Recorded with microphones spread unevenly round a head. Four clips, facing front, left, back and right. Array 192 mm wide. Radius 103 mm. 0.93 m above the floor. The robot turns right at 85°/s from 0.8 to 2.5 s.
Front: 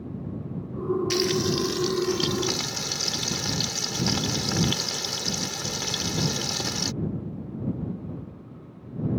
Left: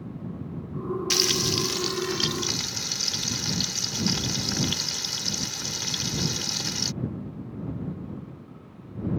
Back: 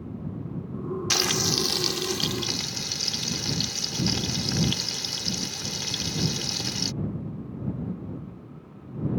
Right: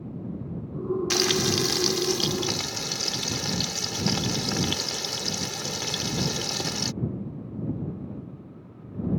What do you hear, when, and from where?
1.1 s frying: 175° right; by 6.9 s 55° right